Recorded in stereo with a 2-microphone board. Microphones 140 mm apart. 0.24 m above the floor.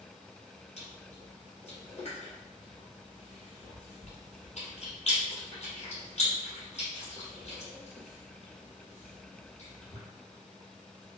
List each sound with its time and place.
0.8 s chewing: 50° left (ahead or behind), 1.5 m